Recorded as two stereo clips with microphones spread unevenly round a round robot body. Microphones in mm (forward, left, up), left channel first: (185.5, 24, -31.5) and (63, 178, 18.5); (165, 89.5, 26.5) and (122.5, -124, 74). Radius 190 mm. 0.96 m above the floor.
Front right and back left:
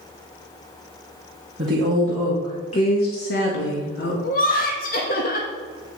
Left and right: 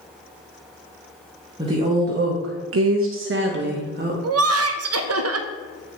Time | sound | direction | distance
1.6 | a woman speaking | straight behind | 0.9 m
4.2 | laughter | 95° right | 0.7 m